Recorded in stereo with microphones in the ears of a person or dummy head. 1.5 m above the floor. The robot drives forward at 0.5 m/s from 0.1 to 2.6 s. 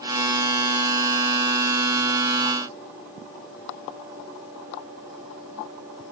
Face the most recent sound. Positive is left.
No sound to turn to.